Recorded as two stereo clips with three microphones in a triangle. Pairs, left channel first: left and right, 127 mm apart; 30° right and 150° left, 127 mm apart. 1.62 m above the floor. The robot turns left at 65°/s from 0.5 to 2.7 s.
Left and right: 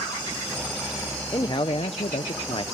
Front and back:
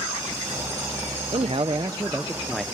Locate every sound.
1.3 s a man speaking: 140° left, 0.6 m; by 2.6 s 55° left, 0.6 m